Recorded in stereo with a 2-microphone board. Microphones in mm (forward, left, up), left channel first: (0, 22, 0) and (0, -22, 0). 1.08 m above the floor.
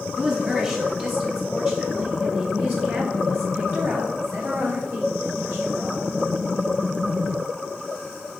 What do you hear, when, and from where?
0.2 s a woman speaking: 20° right (ahead or behind), 2 m; by 6.1 s 75° right (ahead or behind), 4.5 m